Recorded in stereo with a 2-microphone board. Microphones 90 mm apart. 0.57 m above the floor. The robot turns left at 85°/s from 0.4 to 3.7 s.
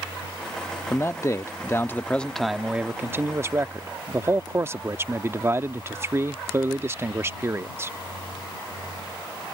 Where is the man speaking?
130° left; by 7.9 s 110° right.